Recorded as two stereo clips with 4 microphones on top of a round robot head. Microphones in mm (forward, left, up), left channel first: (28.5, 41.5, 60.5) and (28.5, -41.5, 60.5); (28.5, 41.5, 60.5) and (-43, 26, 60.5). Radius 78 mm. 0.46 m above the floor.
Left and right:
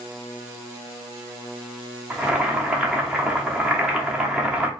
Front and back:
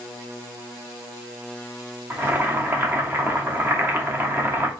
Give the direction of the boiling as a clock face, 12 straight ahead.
5 o'clock.